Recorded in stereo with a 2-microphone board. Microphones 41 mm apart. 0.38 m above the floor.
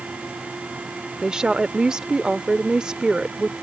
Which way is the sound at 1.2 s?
15° right (ahead or behind).